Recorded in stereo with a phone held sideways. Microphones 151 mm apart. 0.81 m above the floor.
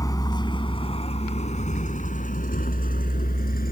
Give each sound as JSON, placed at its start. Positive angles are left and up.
{"t": 0.0, "sound": "a vehicle", "side_deg": 25}